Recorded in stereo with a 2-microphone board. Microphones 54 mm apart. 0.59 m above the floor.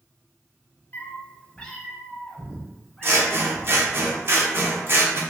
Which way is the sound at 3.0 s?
45° right (ahead or behind).